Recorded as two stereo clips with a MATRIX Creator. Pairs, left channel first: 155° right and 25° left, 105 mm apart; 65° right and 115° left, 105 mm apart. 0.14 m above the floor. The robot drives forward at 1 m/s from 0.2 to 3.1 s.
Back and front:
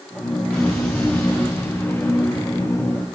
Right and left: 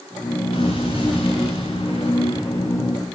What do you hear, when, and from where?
0.5 s an explosion: 75° right, 8.5 m; by 3.1 s 90° right, 8.5 m